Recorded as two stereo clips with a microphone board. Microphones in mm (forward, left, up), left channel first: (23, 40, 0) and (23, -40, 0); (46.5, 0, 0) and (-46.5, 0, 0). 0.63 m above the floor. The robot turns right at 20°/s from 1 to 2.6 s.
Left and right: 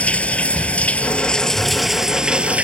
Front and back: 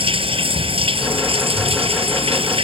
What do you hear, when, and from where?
0.0 s running water: 165° left; by 2.6 s 165° right